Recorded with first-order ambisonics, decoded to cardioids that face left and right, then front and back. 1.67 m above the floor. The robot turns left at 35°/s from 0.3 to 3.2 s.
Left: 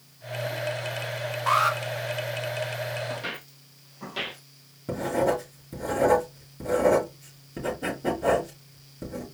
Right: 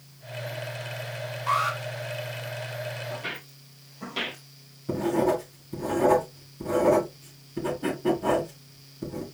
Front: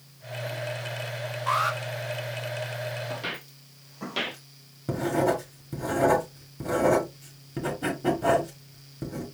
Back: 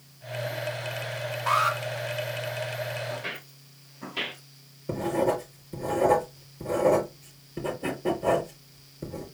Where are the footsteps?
35° left, 2.5 m; by 4.4 s 10° right, 3.5 m.